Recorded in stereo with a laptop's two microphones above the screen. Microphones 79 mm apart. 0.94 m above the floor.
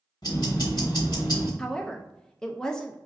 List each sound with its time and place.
0.2 s ticking: 60° left (ahead or behind), 1.9 m
1.6 s a woman speaking: 10° left (ahead or behind), 0.5 m